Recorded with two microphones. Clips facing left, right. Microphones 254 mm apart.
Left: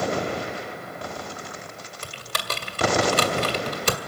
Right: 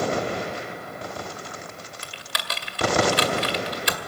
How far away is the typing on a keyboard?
About 1.9 m.